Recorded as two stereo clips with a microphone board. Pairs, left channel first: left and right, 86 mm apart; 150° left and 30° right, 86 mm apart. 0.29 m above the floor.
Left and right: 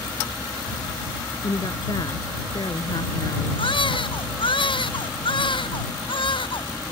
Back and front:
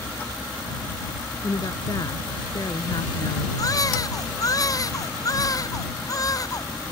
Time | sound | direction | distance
1.4 | a woman speaking | 115° left | ?
3.6 | a baby crying | 105° left | ?